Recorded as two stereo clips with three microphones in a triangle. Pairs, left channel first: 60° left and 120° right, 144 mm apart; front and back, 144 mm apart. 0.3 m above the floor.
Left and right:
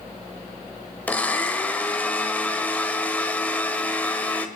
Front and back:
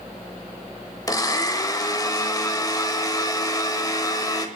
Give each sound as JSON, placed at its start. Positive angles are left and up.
{"t": 1.1, "sound": "a blender", "azimuth_deg": -5, "distance_m": 1.1}